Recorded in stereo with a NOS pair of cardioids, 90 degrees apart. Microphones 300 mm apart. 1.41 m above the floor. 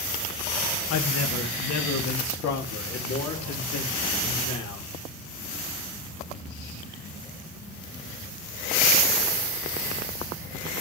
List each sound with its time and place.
0.9 s a man speaking: 55° left, 1.8 m; by 4.9 s 75° left, 5 m